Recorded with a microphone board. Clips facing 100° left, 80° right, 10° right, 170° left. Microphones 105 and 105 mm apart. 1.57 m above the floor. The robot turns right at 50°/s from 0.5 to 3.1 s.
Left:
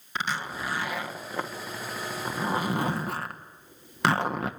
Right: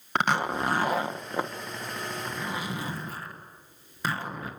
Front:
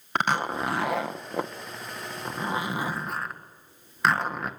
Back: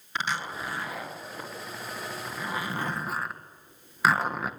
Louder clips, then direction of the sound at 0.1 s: Right 6 dB, front 6 dB; 50° right.